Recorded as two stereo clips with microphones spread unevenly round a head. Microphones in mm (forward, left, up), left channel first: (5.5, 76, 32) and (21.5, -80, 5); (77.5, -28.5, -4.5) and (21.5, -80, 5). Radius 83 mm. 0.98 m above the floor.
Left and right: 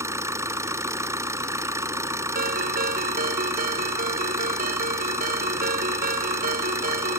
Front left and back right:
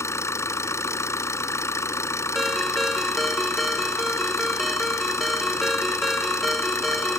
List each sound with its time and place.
0.0 s an engine running: 10° right
2.4 s a ringtone: 50° right